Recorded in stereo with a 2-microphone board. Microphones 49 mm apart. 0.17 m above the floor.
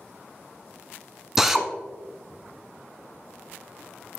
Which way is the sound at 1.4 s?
10° right (ahead or behind).